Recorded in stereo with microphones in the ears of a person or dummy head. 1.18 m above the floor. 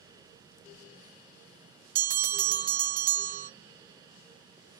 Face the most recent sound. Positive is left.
turn(degrees=-40)  # may be behind; listen again after turning